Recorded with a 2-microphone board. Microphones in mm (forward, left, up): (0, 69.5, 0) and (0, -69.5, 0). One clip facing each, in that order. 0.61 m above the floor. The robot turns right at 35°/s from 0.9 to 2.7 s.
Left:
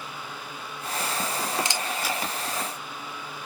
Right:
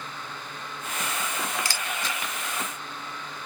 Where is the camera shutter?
20° left (ahead or behind), 0.7 m; by 3.5 s 15° right (ahead or behind), 0.7 m.